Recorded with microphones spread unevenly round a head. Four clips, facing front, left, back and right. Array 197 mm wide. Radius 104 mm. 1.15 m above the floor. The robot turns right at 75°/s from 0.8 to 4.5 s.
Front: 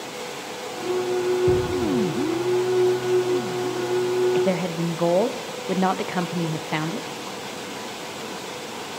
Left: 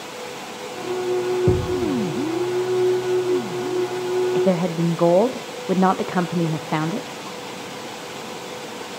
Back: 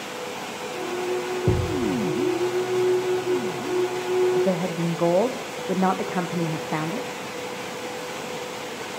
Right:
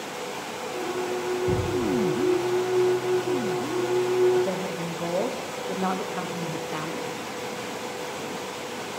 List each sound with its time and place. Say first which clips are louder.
1.5 s a thud: left 5 dB, front 3 dB; 110° left, 2.0 m; by 1.9 s 140° left, 2.0 m
4.3 s a woman speaking: left 6 dB, even; 70° left, 0.7 m; by 7.1 s 80° left, 0.7 m